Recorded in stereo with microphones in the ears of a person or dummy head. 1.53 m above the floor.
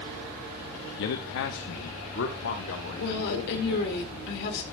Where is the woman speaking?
60° left (ahead or behind), 1.9 m.